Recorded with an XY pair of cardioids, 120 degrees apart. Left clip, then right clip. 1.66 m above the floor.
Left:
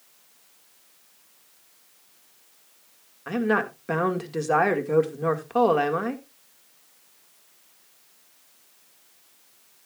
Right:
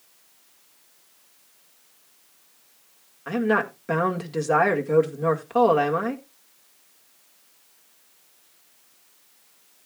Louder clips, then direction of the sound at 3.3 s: Right 1 dB; straight ahead.